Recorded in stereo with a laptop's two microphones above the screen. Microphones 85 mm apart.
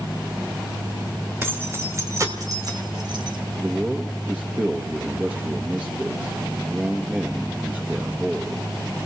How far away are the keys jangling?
About 2.5 m.